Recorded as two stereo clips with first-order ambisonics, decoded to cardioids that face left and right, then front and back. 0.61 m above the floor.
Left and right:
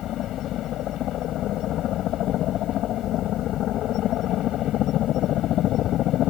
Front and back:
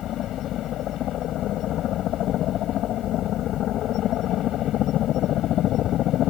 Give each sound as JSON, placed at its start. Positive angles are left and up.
{"t": 0.0, "sound": "a helicopter", "azimuth_deg": 45}